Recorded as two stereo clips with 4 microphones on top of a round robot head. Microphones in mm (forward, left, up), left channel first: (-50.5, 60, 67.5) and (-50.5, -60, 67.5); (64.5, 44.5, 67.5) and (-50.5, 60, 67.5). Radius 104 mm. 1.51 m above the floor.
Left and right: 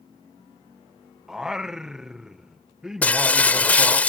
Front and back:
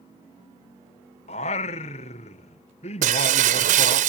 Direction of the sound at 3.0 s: 170° left.